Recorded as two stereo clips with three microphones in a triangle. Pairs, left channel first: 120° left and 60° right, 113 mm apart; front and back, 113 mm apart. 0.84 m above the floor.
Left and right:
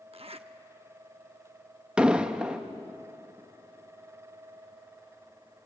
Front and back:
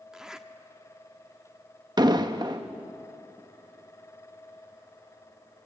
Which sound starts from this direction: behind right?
An explosion, at 2.0 s.